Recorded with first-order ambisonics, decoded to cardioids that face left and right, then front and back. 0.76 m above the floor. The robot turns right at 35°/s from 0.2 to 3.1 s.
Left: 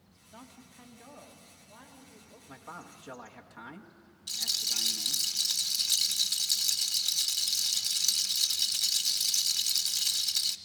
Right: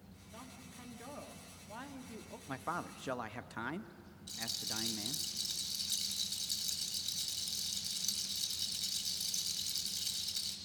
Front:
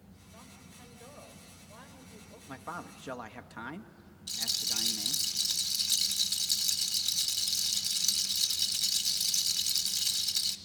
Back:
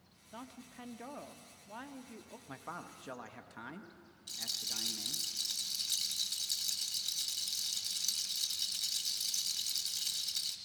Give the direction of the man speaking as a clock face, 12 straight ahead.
3 o'clock.